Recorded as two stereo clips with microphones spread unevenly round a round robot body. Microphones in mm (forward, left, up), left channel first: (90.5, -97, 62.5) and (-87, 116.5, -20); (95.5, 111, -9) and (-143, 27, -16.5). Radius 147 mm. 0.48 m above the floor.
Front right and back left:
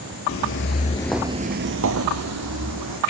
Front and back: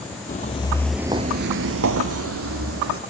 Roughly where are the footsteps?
Ahead right.